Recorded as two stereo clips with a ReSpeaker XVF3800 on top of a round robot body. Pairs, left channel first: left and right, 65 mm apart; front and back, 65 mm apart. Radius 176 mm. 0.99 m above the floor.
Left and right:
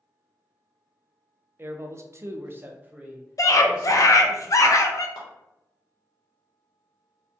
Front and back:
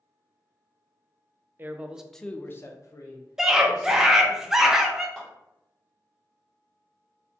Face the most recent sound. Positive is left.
turn(degrees=85)